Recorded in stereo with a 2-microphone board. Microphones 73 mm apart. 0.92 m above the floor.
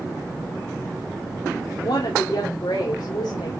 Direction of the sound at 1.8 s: 80° left.